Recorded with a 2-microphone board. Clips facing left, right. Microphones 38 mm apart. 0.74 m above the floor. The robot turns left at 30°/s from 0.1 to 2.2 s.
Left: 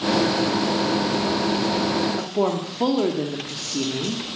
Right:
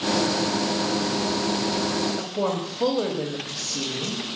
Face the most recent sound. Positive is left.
turn(degrees=45)  # may be behind; listen again after turning